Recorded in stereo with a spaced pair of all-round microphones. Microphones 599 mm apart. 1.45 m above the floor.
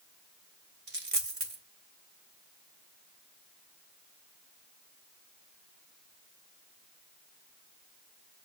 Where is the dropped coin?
60° right (ahead or behind), 2 m.